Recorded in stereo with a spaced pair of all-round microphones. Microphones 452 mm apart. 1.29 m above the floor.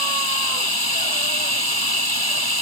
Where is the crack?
No crack in this recording.